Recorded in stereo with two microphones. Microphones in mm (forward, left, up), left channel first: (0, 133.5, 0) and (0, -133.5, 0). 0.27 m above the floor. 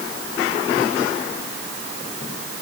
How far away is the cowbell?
I don't hear a cowbell.